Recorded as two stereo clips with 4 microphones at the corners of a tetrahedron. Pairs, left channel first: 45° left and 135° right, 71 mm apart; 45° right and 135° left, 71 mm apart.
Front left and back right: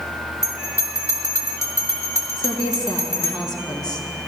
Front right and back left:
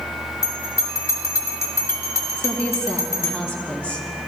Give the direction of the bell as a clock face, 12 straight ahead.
12 o'clock.